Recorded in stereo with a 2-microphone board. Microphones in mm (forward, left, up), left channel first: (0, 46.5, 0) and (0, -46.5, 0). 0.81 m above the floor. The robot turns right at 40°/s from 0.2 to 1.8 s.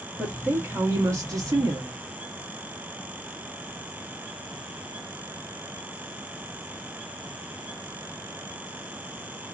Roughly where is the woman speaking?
Behind.